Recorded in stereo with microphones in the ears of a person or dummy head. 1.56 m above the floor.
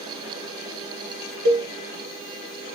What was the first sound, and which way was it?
A cowbell, 55° right (ahead or behind).